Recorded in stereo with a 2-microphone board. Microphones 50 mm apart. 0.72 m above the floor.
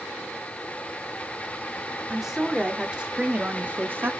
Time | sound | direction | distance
2.1 | a woman speaking | 5° right (ahead or behind) | 2 m